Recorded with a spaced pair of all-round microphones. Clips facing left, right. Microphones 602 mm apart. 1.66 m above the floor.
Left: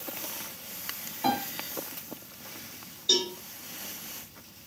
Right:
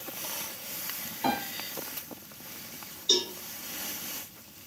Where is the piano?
5° left (ahead or behind), 0.7 m.